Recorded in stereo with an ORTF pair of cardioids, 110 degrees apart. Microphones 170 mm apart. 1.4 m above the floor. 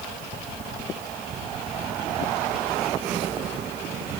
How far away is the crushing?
I don't hear crushing.